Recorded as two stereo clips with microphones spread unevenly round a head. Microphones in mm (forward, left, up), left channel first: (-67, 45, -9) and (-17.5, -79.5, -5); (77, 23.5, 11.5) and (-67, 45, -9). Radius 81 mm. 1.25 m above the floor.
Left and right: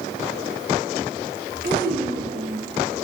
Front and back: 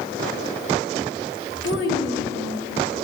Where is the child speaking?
25° right, 1.5 m.